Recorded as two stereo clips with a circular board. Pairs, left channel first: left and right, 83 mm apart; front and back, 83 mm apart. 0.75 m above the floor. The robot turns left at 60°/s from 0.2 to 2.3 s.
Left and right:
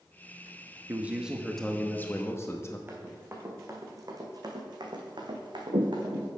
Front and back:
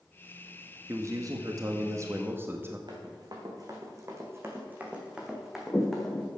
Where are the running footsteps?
155° right, 2.5 m; by 6.3 s 80° right, 2.5 m.